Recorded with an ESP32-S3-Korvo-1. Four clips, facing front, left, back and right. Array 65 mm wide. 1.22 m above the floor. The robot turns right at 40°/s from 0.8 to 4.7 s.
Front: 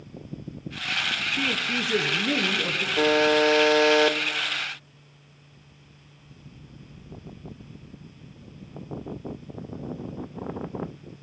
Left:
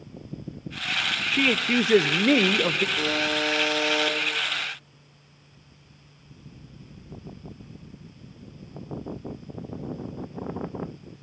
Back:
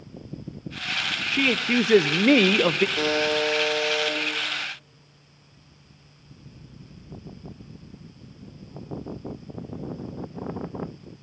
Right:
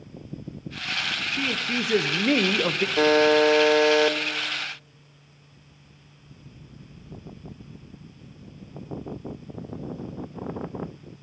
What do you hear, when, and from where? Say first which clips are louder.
1.3 s a man speaking: left 7 dB, back 8 dB; 125° left, 0.8 m; by 2.9 s 170° right, 0.8 m
3.0 s a buzzer: right 8 dB, front 4 dB; 75° right, 2 m; by 4.2 s 25° right, 2 m